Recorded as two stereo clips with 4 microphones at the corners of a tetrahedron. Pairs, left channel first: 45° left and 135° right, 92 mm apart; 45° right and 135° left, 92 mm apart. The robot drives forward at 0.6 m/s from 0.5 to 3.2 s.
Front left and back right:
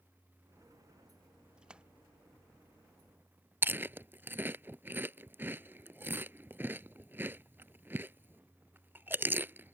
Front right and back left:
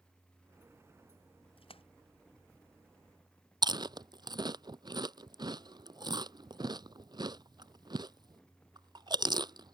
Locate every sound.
1.6 s a splash: 55° right
3.6 s chewing: 160° left